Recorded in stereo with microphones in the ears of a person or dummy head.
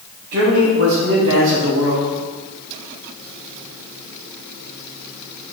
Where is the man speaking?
45° right (ahead or behind), 1.0 m.